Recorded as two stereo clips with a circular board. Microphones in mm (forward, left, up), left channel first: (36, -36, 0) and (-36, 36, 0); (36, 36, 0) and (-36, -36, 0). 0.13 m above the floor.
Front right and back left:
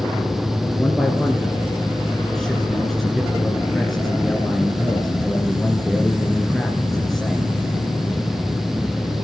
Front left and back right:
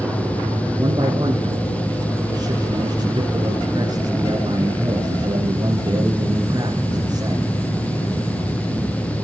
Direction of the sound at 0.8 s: 130° right.